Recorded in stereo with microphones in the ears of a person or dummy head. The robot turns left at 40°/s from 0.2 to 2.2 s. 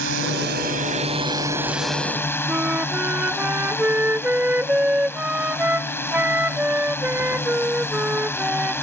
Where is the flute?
5° right (ahead or behind).